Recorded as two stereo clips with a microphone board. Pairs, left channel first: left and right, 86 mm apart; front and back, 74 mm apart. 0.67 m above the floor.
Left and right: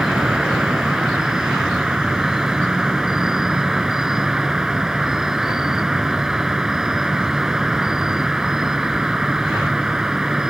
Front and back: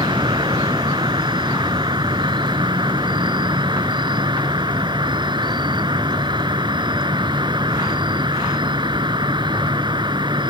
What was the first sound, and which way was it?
An insect, 175° right.